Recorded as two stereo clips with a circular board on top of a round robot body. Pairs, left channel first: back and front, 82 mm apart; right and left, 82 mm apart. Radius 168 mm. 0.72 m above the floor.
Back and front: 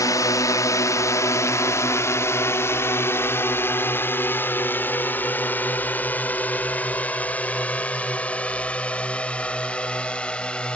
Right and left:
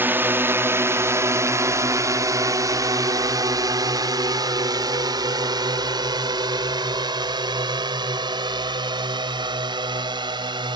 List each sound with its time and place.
0.0 s a drone: 150° left; by 10.8 s 105° left